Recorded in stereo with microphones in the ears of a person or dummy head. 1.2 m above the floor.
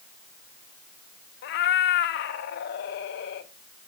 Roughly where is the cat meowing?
Left.